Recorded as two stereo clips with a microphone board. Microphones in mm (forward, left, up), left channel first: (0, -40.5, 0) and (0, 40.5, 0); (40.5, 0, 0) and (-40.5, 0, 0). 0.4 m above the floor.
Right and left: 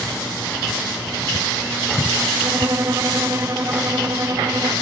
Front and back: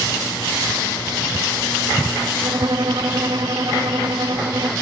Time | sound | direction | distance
2.4 | a violin | 145° left | ?